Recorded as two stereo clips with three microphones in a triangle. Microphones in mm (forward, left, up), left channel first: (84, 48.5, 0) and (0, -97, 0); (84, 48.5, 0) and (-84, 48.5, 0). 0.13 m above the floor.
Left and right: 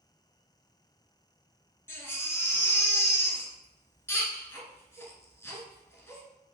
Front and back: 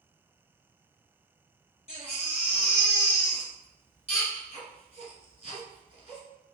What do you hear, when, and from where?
1.9 s a baby crying: 10° right, 0.9 m